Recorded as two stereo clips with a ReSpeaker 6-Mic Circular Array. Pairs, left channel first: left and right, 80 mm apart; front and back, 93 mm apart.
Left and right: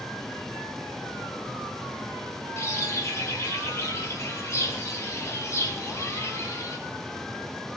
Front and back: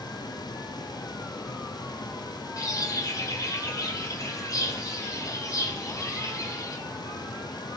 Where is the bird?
45° left, 2.5 m.